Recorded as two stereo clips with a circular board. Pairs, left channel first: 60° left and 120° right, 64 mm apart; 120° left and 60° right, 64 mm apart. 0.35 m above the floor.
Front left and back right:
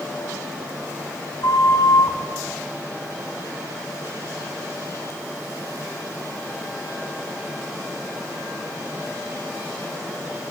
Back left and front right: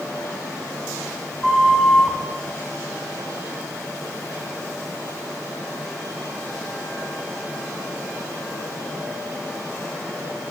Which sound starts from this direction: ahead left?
A flute, at 1.4 s.